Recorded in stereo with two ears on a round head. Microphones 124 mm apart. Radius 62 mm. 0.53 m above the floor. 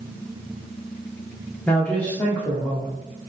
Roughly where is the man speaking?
Centre.